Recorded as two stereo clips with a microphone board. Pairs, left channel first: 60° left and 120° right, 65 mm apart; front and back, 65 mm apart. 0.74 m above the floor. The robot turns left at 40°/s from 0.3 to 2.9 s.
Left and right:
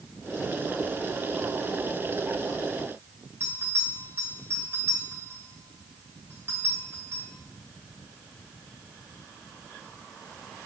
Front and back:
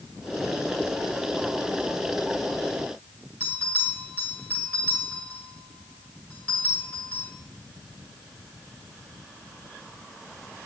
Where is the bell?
65° right, 2 m.